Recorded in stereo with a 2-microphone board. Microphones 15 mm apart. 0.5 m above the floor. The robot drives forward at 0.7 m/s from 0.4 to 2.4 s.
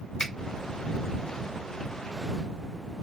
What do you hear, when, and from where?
0.2 s a finger snap: 50° left (ahead or behind), 1.3 m